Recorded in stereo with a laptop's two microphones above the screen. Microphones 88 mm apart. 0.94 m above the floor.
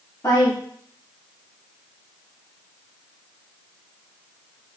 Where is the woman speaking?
35° left (ahead or behind), 1.4 m.